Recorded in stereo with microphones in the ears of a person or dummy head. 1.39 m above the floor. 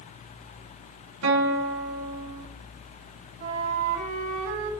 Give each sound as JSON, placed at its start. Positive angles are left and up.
{"t": 1.2, "sound": "a guitar", "side_deg": -80, "distance_m": 3.0}
{"t": 3.4, "sound": "a flute", "side_deg": -75, "distance_m": 4.5}